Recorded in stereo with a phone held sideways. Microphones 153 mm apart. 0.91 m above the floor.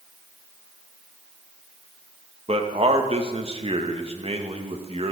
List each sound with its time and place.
2.5 s a man speaking: 45° right (ahead or behind), 1.2 m